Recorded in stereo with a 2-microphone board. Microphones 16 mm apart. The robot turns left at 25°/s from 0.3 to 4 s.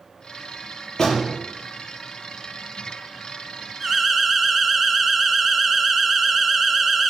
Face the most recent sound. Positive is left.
turn(degrees=-5)  # may be behind; listen again after turning